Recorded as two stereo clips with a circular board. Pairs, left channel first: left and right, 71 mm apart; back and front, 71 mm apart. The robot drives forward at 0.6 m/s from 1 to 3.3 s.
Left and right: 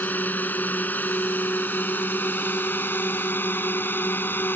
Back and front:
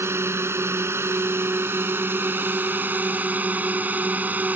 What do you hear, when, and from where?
0.0 s a drone: 35° left; by 4.6 s 50° left